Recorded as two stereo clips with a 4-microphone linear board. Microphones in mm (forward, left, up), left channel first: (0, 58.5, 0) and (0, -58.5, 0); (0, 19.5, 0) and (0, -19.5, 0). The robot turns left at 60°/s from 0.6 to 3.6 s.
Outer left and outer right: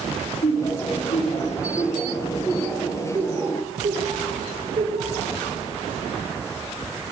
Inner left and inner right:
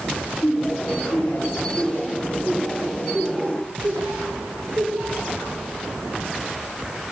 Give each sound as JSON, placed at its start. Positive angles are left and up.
{"t": 0.4, "sound": "laughter", "side_deg": 60, "distance_m": 3.5}